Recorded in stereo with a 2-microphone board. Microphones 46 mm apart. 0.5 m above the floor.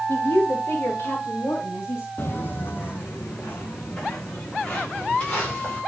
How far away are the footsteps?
About 0.7 m.